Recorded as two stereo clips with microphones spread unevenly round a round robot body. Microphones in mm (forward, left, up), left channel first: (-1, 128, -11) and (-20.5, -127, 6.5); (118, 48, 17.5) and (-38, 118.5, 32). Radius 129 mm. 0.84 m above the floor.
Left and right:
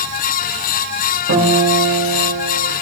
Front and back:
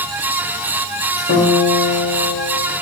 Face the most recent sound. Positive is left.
turn(degrees=-65)